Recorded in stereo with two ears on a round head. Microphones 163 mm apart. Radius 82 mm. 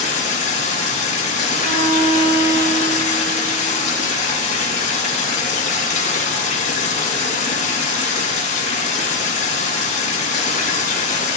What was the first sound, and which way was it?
Running water, 50° left (ahead or behind).